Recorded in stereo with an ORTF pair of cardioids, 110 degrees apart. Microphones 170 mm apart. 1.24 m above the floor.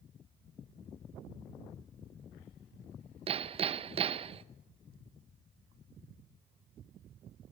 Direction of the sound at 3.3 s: 35° right.